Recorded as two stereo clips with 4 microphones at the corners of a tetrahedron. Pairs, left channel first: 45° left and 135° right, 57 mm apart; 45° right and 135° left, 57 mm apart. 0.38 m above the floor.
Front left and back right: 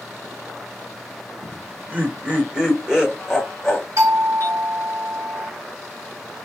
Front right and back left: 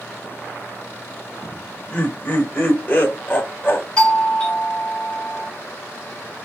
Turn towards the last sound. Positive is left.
turn(degrees=-120)